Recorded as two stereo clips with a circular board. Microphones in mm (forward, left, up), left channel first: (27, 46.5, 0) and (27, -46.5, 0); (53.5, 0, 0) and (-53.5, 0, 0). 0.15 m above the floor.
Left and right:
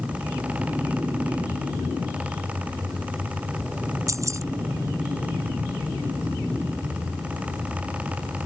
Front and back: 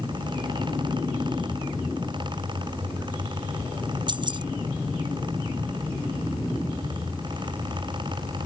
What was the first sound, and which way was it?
Keys jangling, 140° right.